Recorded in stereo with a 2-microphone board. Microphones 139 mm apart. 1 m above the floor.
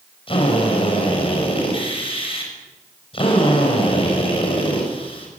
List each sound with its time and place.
0.3 s a drill: 40° left (ahead or behind), 6.5 m